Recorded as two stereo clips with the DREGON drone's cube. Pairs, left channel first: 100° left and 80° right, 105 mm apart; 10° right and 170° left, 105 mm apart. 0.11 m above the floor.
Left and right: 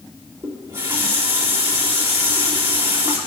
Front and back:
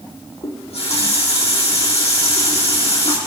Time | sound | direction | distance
0.4 | a running tap | 30° right | 4 m